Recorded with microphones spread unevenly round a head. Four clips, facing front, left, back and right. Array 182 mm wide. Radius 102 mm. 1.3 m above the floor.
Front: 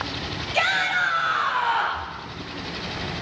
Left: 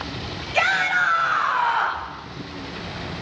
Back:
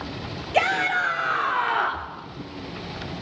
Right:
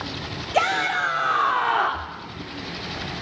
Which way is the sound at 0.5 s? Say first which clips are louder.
Left 1 dB, back 2 dB; 145° right.